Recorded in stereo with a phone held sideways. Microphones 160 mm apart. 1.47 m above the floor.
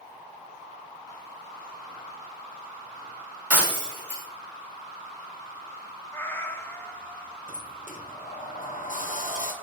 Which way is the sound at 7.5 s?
55° left (ahead or behind).